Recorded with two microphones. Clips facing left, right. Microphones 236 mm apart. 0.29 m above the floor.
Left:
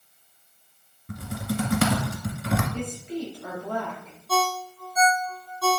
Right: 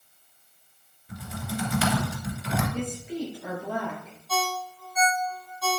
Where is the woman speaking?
5° right (ahead or behind), 4 m.